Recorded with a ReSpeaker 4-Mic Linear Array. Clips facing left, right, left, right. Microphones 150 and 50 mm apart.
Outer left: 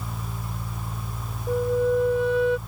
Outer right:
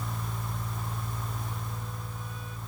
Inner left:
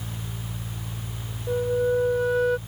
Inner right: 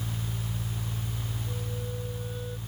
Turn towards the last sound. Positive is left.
turn(degrees=75)  # may be behind; listen again after turning